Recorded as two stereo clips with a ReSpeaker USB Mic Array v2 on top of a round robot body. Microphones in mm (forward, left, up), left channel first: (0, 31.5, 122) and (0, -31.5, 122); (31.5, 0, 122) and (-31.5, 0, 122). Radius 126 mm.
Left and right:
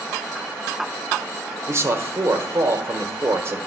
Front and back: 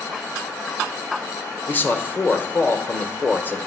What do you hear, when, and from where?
1.7 s a man speaking: 50° right, 1.2 m